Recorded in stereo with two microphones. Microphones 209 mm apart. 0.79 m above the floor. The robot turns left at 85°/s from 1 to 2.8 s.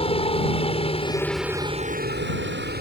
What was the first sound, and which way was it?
A helicopter, 30° left.